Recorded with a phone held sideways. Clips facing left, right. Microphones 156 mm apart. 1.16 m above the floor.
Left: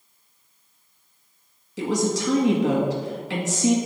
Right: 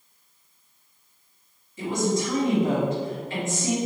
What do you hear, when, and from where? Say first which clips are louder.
1.8 s a woman speaking: left 1 dB; 75° left (ahead or behind), 1.6 m